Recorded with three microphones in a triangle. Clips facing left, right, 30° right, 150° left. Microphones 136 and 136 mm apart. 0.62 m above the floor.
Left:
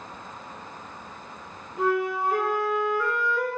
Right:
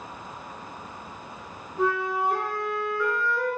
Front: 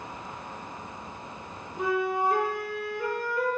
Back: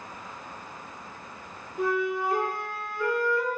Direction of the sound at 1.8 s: 5° left.